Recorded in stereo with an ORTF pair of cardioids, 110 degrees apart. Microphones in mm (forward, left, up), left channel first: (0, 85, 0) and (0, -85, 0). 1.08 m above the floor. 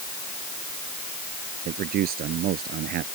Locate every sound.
1.6 s a man speaking: 70° right; by 3.1 s 75° right